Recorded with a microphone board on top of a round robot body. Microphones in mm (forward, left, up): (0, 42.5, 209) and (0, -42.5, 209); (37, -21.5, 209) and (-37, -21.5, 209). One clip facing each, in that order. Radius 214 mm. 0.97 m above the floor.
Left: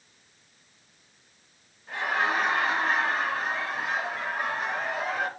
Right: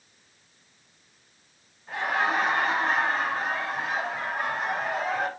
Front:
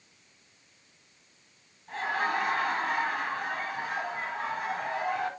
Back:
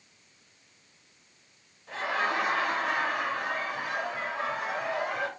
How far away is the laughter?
About 4.5 m.